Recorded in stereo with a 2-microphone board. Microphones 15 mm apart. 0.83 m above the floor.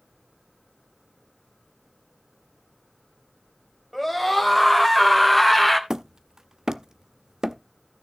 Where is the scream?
5° right (ahead or behind), 3.5 m.